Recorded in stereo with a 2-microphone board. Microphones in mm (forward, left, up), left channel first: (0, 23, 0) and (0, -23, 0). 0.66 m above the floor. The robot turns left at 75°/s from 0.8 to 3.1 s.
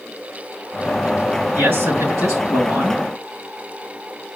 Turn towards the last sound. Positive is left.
turn(degrees=-155)